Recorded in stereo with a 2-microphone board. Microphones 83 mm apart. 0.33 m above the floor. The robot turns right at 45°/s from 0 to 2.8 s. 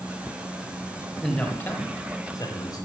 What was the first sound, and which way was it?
A man speaking, 10° left.